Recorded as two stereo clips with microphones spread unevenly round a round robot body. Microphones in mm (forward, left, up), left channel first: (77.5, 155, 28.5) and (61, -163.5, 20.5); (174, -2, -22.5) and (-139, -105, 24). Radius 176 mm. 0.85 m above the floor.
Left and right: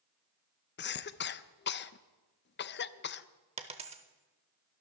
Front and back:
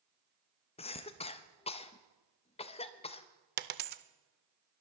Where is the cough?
60° left, 0.6 m.